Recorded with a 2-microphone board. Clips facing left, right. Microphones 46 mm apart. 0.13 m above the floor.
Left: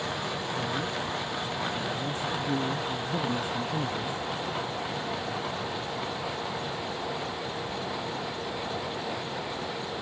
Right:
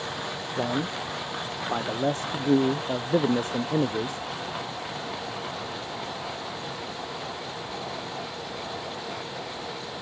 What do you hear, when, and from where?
0.6 s a man speaking: 55° right (ahead or behind)